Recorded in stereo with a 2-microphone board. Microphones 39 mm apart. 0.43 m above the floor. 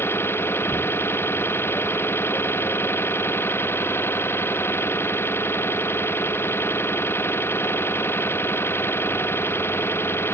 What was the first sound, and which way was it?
An engine running, 85° left.